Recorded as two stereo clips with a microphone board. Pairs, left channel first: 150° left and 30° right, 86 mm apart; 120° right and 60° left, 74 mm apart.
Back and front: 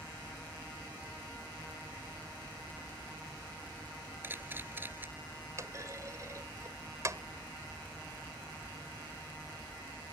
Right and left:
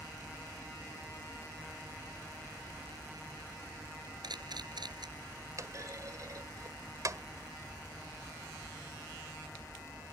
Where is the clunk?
20° left.